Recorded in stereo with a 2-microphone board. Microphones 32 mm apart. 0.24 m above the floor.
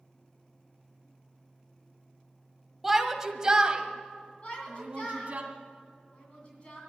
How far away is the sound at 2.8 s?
About 1.3 m.